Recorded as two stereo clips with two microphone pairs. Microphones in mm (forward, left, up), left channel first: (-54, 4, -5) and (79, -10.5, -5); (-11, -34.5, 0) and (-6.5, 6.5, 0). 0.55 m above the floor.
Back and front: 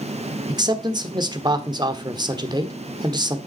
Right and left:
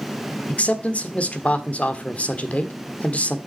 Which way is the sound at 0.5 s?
55° right.